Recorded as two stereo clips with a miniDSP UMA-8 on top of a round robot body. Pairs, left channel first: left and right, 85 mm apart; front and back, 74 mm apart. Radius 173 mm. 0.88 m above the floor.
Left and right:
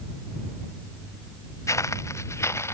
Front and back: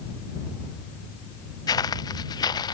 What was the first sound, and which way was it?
Footsteps, 35° left.